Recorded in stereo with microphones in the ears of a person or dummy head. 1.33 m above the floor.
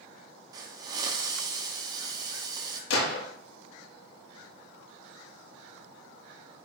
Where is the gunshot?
70° left (ahead or behind), 2.5 m.